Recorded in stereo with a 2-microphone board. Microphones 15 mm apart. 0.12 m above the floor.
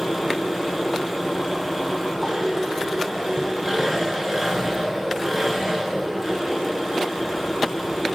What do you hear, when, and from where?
0.0 s an engine running: 15° right (ahead or behind), 3 m